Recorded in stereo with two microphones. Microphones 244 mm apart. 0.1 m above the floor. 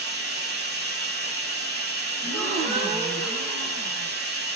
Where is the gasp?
25° right (ahead or behind), 1.2 m.